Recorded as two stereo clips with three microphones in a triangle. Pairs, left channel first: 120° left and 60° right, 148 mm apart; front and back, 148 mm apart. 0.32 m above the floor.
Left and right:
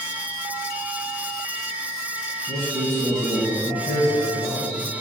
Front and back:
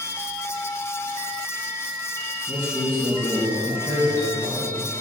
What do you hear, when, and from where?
2.5 s a man speaking: 125° left, 1.6 m; by 5.0 s 85° left, 2.5 m